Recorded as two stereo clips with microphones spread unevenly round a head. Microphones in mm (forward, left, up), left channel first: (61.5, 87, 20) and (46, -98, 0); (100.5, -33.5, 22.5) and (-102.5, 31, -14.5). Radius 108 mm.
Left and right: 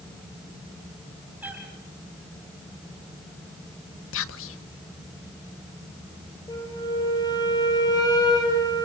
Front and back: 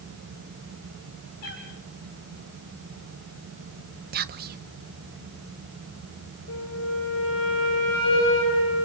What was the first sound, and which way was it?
A cat meowing, 15° right.